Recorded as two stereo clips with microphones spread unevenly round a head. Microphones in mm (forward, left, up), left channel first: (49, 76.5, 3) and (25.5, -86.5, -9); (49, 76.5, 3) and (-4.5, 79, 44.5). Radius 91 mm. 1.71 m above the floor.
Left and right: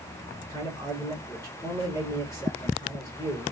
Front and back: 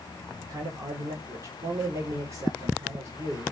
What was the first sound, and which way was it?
A man speaking, 155° left.